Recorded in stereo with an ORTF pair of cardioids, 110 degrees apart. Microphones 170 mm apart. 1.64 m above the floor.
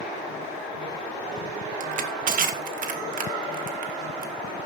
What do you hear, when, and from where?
1.8 s crushing: 50° right, 2 m